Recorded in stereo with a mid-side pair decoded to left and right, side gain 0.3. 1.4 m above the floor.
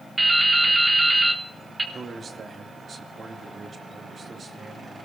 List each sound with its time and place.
0.2 s dripping: 30° right, 3 m
1.9 s a man speaking: 65° right, 2.5 m